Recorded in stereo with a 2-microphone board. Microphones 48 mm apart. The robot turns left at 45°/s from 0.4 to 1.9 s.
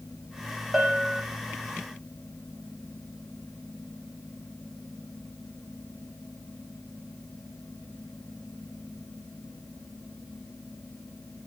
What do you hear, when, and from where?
0.7 s a bell: centre (ahead or behind), 0.9 m; by 1.2 s 20° left (ahead or behind), 0.9 m